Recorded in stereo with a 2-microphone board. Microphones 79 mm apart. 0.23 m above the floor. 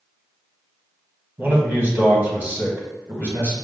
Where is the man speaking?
20° right (ahead or behind), 1.4 m.